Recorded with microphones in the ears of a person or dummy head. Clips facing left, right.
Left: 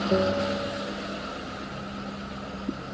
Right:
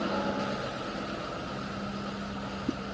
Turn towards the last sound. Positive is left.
turn(degrees=75)  # may be behind; listen again after turning